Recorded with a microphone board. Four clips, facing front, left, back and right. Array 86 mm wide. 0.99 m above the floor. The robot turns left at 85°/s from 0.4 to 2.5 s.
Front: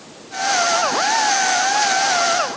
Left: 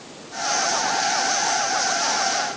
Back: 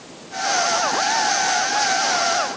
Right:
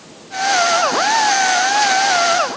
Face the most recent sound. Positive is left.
No sound to turn to.